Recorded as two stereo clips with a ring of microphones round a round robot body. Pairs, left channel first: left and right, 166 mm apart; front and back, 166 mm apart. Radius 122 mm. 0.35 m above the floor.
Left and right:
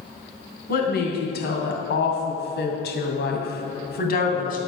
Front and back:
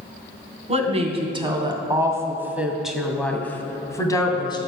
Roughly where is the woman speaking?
Behind left.